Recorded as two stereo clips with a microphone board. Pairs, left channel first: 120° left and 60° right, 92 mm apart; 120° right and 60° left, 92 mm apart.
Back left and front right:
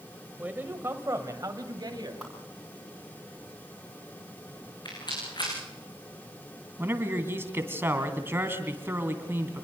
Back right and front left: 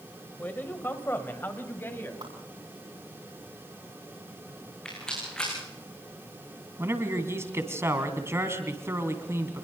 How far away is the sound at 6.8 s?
About 2.5 m.